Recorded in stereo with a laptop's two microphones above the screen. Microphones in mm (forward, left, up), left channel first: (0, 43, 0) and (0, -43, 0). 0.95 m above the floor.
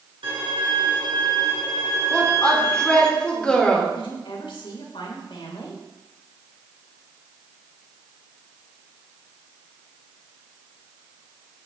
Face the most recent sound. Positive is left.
turn(degrees=80)